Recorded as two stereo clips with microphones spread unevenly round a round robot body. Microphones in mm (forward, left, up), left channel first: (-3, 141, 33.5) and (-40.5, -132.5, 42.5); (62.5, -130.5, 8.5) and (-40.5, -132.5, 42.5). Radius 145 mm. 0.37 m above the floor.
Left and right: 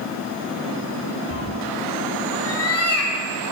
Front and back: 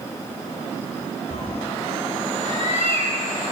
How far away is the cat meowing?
About 2 m.